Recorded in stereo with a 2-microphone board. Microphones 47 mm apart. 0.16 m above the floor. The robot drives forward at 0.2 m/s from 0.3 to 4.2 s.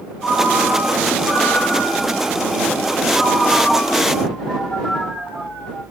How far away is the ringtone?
About 4 m.